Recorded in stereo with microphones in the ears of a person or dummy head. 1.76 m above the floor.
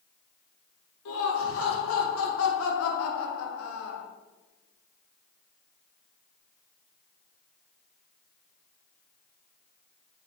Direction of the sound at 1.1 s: 85° left.